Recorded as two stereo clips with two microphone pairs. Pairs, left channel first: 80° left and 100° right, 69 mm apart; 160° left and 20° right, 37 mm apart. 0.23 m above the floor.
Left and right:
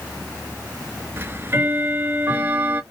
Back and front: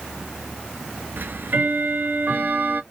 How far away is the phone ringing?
No phone ringing in this recording.